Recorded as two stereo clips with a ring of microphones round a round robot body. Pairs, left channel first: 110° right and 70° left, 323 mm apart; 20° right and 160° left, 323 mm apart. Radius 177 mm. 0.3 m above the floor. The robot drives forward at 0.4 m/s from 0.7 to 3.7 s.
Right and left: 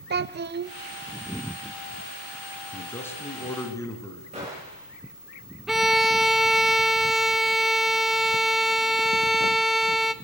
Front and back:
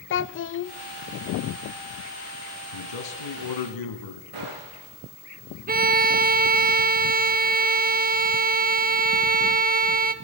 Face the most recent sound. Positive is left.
turn(degrees=155)